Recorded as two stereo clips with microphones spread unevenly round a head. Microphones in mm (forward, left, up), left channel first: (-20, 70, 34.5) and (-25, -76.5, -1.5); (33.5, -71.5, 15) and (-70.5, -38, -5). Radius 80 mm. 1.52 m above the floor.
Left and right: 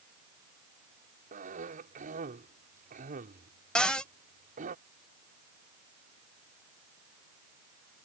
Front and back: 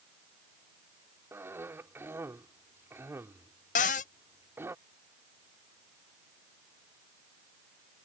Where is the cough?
130° right.